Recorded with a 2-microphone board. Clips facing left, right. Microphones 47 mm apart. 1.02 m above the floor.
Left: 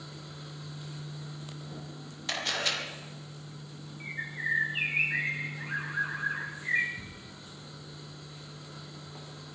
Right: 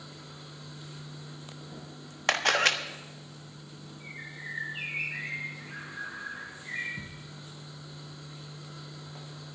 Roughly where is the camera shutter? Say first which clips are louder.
Right 7 dB; right.